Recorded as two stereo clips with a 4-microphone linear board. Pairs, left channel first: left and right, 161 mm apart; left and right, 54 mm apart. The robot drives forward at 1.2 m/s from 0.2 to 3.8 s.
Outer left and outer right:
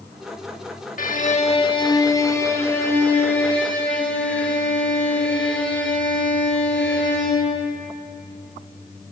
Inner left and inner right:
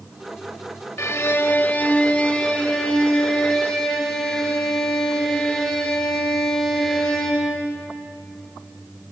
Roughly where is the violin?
Left.